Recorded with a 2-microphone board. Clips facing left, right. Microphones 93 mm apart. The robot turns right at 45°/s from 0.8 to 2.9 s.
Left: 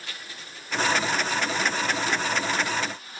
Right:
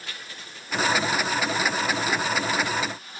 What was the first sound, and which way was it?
Only background noise.